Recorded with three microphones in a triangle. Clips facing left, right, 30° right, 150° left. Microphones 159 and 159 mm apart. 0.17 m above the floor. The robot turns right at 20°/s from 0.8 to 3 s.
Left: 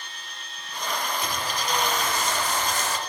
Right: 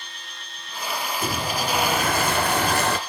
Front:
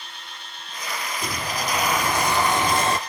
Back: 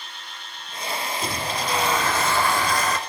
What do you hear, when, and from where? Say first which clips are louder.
1.2 s a sliding door: right 4 dB, front 2 dB; 125° right, 1.2 m; by 3.0 s 90° right, 1.2 m